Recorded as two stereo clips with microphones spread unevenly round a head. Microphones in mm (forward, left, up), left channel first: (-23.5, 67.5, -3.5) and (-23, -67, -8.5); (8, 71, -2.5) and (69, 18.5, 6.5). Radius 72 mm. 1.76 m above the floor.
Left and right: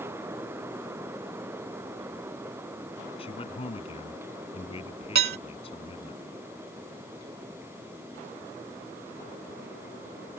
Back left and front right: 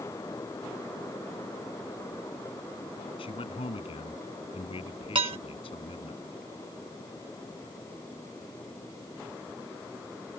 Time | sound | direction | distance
3.2 | a man speaking | 140° left | ?
5.2 | dishes clattering | 80° right | ?